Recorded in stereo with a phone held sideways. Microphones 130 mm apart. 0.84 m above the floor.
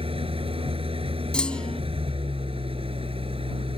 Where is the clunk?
5° left (ahead or behind).